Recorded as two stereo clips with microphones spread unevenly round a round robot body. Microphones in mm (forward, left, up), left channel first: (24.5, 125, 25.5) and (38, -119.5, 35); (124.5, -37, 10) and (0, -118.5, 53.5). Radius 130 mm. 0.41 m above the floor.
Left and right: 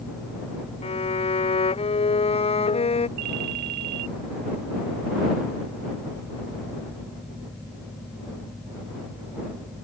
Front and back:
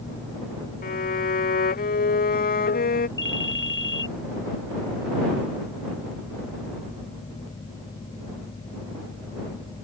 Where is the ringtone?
85° right.